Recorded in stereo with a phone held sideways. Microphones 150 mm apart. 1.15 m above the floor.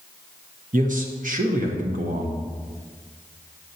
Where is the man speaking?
60° right (ahead or behind), 0.9 m.